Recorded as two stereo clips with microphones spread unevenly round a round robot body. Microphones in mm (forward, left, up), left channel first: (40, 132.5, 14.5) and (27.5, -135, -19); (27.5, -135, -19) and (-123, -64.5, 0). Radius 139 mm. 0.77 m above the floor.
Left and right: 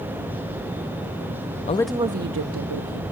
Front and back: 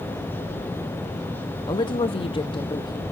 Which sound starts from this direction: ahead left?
A woman speaking, at 1.7 s.